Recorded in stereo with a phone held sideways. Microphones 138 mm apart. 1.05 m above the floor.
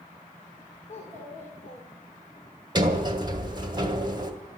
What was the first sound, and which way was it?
A child speaking, 55° left (ahead or behind).